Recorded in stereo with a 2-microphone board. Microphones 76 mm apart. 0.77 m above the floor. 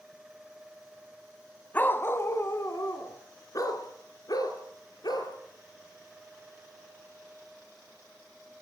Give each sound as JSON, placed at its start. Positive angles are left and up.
{"t": 1.7, "sound": "a dog barking", "side_deg": 25, "distance_m": 1.5}